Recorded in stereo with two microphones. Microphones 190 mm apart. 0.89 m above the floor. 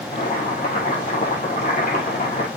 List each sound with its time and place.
0.1 s boiling: 45° left (ahead or behind), 5.5 m